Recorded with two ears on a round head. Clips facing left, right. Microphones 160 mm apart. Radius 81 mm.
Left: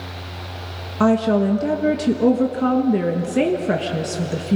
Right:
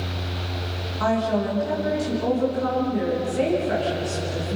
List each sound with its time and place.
1.0 s a woman speaking: 75° left (ahead or behind), 1.4 m